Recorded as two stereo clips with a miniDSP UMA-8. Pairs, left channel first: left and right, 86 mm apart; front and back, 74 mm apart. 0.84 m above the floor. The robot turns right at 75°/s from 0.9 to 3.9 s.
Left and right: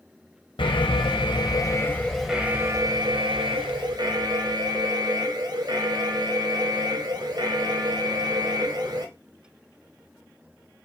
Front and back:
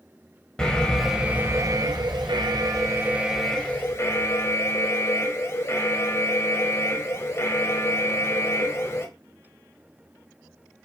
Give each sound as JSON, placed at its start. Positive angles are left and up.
{"t": 0.6, "sound": "an alarm", "azimuth_deg": 80, "distance_m": 3.5}